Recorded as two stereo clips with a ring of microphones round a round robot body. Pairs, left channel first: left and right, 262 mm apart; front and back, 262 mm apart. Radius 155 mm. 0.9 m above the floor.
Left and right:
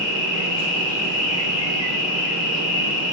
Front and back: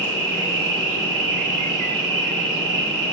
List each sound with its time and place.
0.0 s an insect: 160° left, 4.5 m